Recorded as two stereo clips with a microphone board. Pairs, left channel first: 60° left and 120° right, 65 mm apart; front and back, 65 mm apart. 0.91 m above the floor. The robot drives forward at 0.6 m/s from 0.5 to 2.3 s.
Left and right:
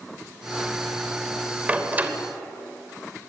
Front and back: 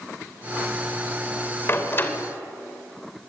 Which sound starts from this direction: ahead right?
A door slam, at 1.7 s.